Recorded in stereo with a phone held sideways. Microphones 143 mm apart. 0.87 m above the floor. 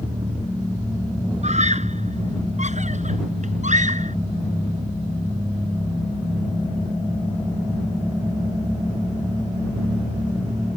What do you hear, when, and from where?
1.4 s a scream: 60° right (ahead or behind); by 4.2 s 65° right (ahead or behind)